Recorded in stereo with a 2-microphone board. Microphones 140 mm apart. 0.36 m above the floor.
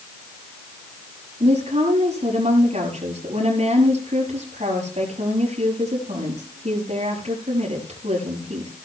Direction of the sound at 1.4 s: 55° right (ahead or behind).